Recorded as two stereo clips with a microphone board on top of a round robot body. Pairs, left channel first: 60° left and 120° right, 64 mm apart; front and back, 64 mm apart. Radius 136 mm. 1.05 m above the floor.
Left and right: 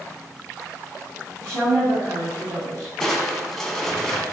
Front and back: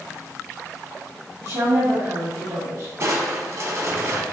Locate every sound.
1.4 s a woman speaking: 150° right, 1.5 m
3.0 s crushing: 145° left, 0.9 m